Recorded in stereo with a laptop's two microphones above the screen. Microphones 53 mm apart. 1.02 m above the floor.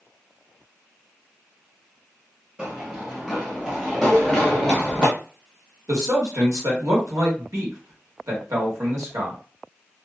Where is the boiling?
I don't hear boiling.